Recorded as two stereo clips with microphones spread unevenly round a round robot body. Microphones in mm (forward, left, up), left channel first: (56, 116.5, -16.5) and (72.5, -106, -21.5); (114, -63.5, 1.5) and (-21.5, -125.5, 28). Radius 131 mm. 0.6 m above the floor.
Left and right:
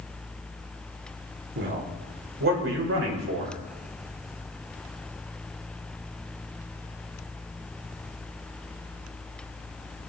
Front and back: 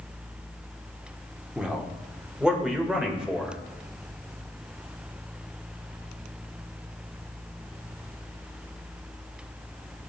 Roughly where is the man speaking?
Ahead right.